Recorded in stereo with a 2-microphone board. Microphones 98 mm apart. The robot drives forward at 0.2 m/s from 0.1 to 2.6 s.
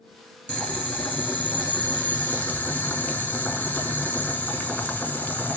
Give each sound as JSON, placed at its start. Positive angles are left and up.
{"t": 0.5, "sound": "boiling", "side_deg": 10, "distance_m": 1.4}